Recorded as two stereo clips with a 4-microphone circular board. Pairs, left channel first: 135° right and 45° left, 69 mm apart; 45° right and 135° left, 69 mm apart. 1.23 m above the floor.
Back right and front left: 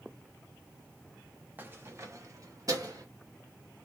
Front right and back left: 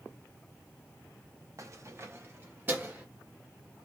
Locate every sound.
1.6 s keys jangling: 105° left, 0.9 m; by 3.0 s 70° left, 1.8 m